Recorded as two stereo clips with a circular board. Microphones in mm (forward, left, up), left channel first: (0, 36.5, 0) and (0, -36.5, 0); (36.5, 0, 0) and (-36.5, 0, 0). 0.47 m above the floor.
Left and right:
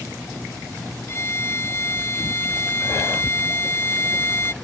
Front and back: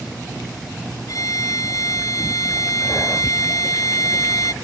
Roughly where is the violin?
Ahead left.